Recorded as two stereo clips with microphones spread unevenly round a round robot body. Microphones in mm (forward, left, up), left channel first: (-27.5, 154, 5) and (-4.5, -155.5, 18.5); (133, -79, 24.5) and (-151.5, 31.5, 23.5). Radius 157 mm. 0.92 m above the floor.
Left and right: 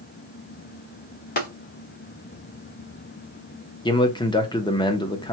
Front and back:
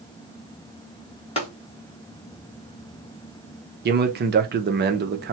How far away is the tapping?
About 1.1 m.